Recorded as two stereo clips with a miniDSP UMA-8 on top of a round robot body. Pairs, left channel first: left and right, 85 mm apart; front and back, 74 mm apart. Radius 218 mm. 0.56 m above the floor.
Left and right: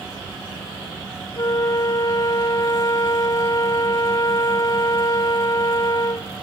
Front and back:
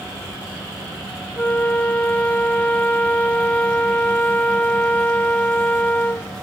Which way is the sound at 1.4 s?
65° left.